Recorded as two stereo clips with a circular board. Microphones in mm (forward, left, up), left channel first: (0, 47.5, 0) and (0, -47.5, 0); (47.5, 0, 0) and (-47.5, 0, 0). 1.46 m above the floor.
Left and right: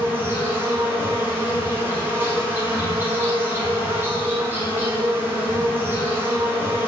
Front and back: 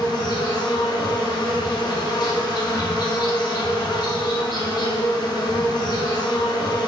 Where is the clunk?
I don't hear a clunk.